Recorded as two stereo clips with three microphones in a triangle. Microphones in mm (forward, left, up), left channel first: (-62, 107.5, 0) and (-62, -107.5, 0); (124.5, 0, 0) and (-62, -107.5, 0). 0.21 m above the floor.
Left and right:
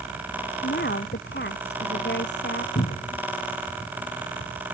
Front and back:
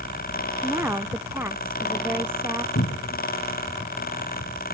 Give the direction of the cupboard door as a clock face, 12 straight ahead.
10 o'clock.